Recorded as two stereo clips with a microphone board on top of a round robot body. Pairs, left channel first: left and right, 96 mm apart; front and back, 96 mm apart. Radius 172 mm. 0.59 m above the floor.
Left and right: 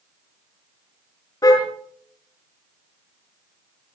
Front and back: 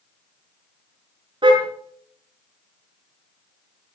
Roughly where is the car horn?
Behind left.